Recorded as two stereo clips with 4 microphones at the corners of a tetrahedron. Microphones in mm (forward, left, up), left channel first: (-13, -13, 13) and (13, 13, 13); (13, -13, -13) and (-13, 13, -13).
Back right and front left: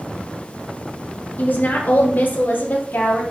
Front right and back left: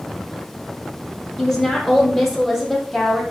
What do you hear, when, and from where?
1.4 s a woman speaking: 120° right, 2 m; by 3.2 s 130° right, 3 m